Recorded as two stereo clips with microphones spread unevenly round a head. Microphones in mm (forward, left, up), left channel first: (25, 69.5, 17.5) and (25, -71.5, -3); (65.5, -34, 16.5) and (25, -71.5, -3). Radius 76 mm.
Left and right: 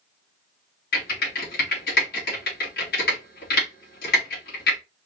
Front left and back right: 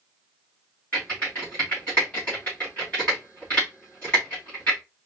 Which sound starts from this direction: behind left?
Typing on a keyboard, at 0.9 s.